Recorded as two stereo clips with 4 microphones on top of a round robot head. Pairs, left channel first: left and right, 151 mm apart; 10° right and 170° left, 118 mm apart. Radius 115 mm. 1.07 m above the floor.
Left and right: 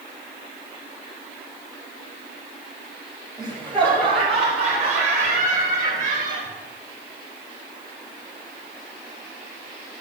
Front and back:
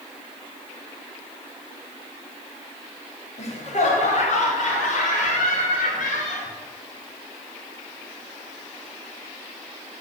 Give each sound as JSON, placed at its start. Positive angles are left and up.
{"t": 3.4, "sound": "laughter", "azimuth_deg": 15, "distance_m": 2.5}